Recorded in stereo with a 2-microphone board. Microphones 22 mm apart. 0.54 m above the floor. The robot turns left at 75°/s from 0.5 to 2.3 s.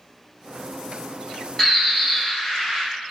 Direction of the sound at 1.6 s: 20° left (ahead or behind).